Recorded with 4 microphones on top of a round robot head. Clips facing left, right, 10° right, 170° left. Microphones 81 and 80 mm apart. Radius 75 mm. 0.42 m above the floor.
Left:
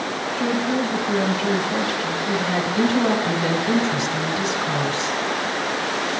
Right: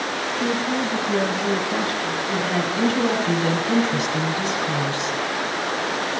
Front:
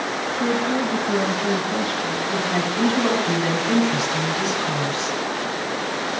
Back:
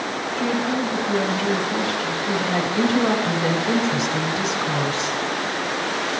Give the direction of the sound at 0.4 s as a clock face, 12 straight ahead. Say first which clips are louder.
Left 2 dB, front 1 dB; 10 o'clock.